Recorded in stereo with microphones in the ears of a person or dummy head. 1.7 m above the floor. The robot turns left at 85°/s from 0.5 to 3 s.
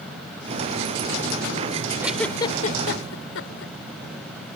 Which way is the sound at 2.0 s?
10° right (ahead or behind).